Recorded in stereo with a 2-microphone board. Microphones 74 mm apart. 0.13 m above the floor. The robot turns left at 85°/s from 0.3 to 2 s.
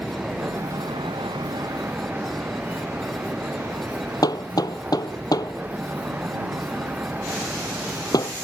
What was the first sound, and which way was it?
A vehicle, 15° right.